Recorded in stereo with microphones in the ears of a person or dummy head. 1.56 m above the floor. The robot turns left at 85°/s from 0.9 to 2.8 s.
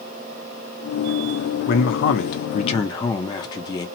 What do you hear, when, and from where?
1.7 s a man speaking: 125° left, 0.5 m; by 3.9 s 25° left, 0.5 m